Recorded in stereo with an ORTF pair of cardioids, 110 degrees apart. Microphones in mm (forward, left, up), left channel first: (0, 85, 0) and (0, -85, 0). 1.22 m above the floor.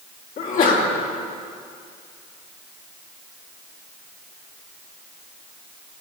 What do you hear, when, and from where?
0.4 s a sneeze: 60° left, 3 m